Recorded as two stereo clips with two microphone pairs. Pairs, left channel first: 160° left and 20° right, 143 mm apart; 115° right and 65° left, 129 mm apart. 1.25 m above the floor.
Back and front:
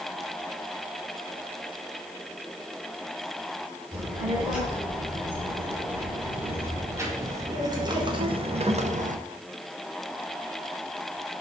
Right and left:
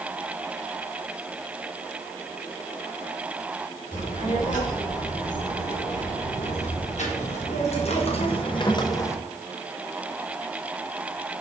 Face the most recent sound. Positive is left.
turn(degrees=-45)